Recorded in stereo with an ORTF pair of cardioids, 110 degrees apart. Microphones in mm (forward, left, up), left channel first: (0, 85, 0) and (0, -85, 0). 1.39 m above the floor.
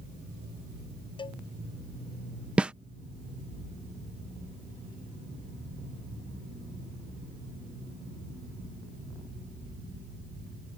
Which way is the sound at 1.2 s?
30° left.